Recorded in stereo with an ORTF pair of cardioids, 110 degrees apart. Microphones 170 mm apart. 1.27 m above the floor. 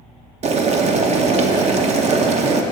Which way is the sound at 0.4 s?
45° right.